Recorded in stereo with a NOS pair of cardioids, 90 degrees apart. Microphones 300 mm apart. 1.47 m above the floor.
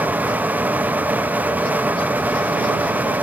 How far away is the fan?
About 0.8 m.